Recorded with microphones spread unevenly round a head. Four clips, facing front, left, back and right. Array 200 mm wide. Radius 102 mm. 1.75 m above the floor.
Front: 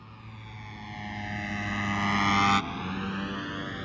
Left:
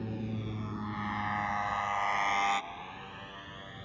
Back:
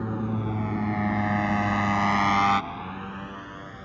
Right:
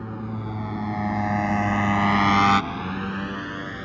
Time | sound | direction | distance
0.0 | a motorcycle | 170° right | ?